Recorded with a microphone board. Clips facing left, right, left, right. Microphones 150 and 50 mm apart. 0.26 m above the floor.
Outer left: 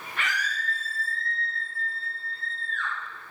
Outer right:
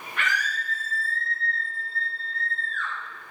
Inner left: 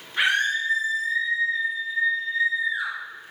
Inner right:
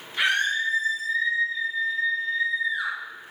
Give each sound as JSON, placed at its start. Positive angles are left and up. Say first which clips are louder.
{"t": 0.2, "sound": "a scream", "louder": "outer right 2 dB, inner left 1 dB", "side_deg": 35, "distance_m": 3.0}